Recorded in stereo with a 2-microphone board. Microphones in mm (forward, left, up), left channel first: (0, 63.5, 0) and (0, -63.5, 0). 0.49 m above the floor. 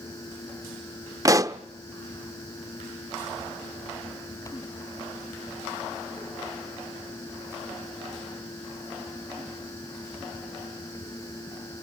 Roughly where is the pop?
Right.